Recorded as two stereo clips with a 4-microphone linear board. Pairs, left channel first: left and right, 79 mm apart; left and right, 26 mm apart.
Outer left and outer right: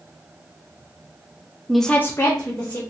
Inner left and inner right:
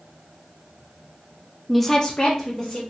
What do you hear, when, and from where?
1.7 s a woman speaking: 5° right (ahead or behind), 0.6 m; by 2.8 s 40° left (ahead or behind), 1.3 m